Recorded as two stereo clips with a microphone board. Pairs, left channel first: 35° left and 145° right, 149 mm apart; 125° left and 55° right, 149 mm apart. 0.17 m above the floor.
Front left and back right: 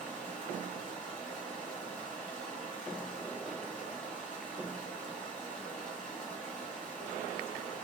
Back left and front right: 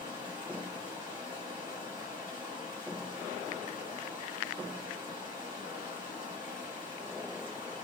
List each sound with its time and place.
0.0 s running water: 40° right, 1.4 m